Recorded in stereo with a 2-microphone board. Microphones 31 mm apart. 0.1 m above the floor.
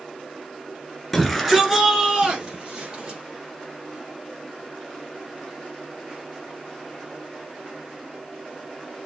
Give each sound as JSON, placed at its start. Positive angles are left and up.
{"t": 1.1, "sound": "a shout", "side_deg": 5, "distance_m": 1.7}